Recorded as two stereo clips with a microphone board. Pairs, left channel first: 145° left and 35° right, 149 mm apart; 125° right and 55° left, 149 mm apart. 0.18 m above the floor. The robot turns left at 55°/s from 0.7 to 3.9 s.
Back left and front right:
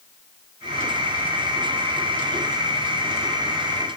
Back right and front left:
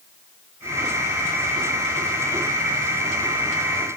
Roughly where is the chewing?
I don't hear chewing.